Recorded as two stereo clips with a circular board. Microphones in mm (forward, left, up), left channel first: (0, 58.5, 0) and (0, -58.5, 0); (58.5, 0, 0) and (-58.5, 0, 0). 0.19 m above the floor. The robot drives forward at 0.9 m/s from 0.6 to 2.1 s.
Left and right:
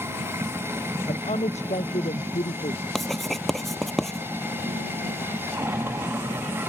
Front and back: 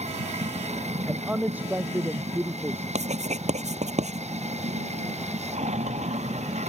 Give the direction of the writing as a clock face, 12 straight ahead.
6 o'clock.